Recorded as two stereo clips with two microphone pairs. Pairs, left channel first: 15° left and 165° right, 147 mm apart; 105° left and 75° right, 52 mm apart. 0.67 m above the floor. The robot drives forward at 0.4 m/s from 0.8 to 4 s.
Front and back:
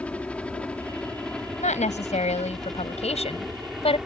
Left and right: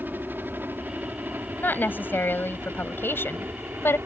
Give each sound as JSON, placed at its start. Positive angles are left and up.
{"t": 0.0, "sound": "a helicopter", "azimuth_deg": -60}
{"t": 1.6, "sound": "a woman speaking", "azimuth_deg": 55}